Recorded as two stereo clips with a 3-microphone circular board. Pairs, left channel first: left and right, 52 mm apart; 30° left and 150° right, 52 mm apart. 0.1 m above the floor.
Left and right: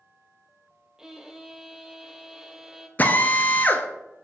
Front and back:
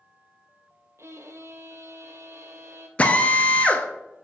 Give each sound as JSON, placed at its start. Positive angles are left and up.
{"t": 1.0, "sound": "a violin", "azimuth_deg": -170, "distance_m": 0.7}
{"t": 3.0, "sound": "a drill", "azimuth_deg": 70, "distance_m": 0.9}